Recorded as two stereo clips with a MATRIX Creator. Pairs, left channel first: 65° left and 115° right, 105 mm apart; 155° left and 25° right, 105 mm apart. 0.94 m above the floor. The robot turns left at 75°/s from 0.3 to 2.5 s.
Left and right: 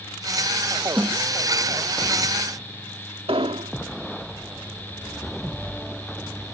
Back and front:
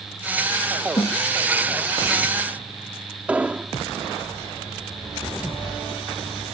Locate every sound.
1.0 s a snare drum: 175° left; by 1.2 s 160° left
3.3 s an explosion: 100° right